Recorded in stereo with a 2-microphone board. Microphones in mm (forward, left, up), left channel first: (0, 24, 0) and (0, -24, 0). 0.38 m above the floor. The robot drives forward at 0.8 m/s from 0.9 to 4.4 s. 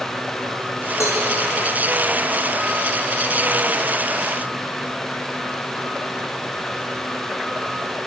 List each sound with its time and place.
1.0 s a cowbell: 85° left, 5 m